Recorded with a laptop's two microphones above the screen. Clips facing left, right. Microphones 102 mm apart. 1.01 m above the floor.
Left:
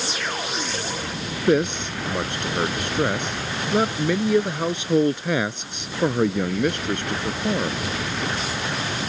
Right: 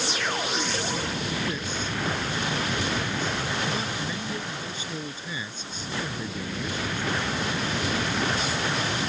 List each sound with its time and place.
1.5 s a man speaking: 70° left (ahead or behind)